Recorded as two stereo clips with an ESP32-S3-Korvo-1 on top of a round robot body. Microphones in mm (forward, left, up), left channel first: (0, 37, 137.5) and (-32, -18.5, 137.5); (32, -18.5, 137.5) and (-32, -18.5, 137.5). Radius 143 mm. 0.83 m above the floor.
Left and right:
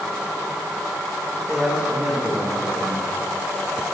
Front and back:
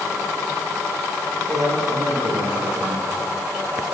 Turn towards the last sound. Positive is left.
turn(degrees=160)